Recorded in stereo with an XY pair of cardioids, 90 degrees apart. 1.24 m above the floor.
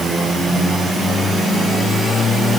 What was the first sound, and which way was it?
Only background noise.